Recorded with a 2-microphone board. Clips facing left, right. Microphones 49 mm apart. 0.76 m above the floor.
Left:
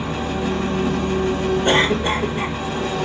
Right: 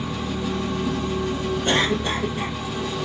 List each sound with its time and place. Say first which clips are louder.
0.0 s an engine running: left 4 dB; 55° left (ahead or behind), 1.0 m
1.6 s a cough: left 3 dB; 30° left (ahead or behind), 1.2 m